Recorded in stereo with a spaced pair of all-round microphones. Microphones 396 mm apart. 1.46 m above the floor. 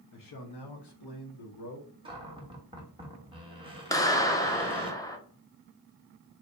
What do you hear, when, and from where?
0.1 s a man speaking: 50° left (ahead or behind), 0.7 m; by 1.9 s 60° left (ahead or behind), 1.4 m
2.0 s a cupboard door: 10° right (ahead or behind), 0.9 m
3.9 s a clap: 10° left (ahead or behind), 0.6 m